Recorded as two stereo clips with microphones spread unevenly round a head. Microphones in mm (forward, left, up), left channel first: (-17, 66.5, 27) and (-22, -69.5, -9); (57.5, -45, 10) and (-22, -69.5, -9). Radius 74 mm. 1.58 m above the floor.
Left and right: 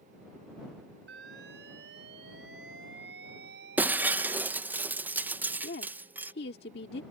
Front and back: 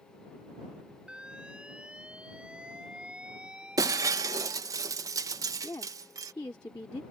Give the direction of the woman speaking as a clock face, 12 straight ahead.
9 o'clock.